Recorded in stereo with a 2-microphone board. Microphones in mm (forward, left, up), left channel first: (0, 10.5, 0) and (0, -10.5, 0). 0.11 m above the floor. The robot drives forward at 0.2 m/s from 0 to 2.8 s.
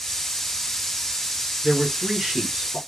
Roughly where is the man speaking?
Right.